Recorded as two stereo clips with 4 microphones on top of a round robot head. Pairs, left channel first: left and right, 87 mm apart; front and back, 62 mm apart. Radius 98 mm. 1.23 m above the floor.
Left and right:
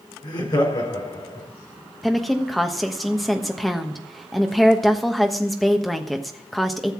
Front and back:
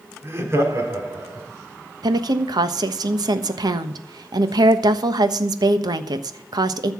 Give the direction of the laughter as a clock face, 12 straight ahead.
8 o'clock.